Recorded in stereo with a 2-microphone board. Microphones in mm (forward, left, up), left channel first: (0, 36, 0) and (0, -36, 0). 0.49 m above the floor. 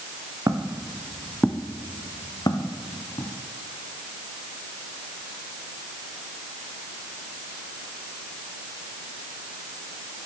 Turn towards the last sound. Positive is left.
turn(degrees=75)  # may be behind; listen again after turning